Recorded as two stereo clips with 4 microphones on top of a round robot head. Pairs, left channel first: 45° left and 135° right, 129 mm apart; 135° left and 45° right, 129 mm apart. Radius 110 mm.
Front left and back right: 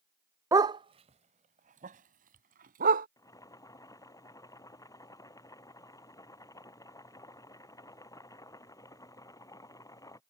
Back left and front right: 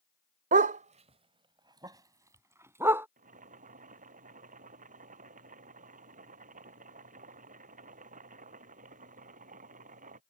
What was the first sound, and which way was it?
A dog barking, 65° right.